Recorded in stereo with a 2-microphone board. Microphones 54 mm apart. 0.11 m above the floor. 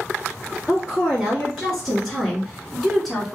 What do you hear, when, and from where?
0.7 s a woman speaking: 5° right (ahead or behind), 2.0 m; by 3.4 s centre (ahead or behind), 1.4 m